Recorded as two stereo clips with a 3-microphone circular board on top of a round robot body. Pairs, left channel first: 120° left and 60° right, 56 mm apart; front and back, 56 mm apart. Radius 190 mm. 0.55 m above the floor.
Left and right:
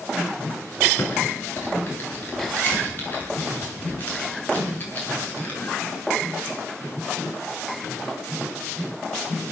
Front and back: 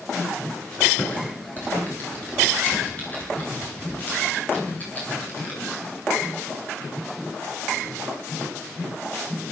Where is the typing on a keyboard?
65° left, 8 m.